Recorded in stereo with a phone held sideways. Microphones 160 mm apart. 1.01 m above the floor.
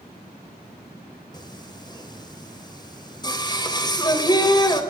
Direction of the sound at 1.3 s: 25° left (ahead or behind).